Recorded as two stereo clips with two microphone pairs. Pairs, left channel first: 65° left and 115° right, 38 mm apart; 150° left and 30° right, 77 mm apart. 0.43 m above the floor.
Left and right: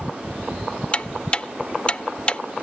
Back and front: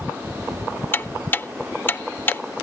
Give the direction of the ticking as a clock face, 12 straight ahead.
8 o'clock.